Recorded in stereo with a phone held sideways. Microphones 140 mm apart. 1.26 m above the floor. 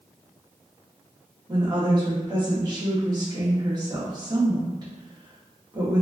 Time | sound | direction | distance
1.5 | a woman speaking | 30° right (ahead or behind) | 1.2 m